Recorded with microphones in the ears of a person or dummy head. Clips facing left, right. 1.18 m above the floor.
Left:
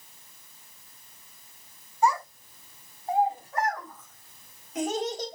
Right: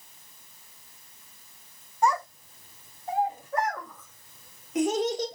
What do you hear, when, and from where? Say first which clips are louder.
2.0 s a child speaking: even; 40° right (ahead or behind), 3.5 m; by 5.4 s 65° right (ahead or behind), 1.8 m